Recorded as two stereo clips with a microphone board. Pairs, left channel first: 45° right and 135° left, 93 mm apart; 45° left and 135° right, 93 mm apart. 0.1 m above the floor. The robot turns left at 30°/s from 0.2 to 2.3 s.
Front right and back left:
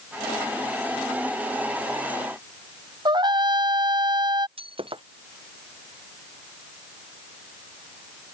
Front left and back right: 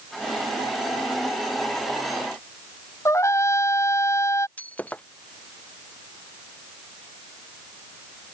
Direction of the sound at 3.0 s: 100° left.